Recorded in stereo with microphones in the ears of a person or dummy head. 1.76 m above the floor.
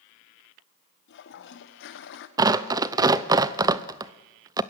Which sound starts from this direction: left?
A toilet flushing, at 1.1 s.